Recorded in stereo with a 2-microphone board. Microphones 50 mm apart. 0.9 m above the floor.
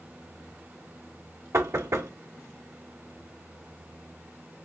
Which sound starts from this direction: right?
Knocking, at 1.5 s.